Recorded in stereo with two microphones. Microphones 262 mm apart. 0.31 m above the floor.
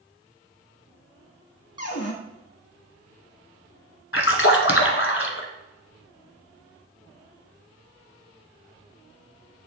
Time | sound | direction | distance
1.8 | a cupboard door | 60° left (ahead or behind) | 1.2 m
4.1 | a splash | 55° left (ahead or behind) | 1.2 m